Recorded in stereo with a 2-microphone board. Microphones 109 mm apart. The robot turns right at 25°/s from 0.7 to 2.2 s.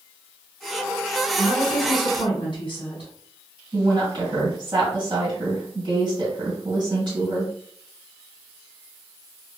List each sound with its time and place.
1.4 s a woman speaking: 40° left (ahead or behind), 1.1 m; by 3.1 s 45° left (ahead or behind), 1.1 m
3.7 s a woman speaking: 45° right (ahead or behind), 1.8 m